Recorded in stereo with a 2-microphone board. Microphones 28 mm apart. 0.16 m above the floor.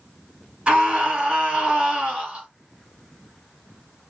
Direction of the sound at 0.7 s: 35° right (ahead or behind).